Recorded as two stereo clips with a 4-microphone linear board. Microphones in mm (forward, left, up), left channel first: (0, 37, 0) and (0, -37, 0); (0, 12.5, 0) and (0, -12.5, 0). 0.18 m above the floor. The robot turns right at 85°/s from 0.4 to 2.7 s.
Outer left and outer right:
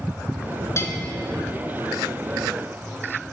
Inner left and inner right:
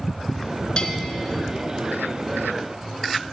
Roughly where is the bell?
Left.